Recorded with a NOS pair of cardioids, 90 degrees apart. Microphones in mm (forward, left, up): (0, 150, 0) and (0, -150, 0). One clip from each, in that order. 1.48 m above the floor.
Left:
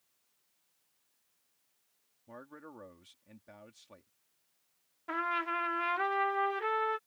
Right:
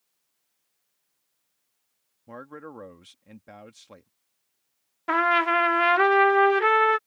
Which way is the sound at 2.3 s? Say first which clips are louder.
Right 9 dB; 55° right.